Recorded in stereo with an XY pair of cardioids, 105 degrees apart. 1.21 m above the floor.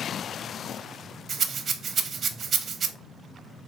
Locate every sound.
1.3 s a rattle: 45° right, 0.6 m